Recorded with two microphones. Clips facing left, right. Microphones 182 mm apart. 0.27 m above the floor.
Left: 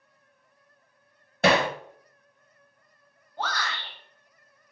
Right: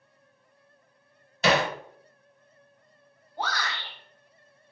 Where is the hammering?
55° left (ahead or behind), 0.6 m.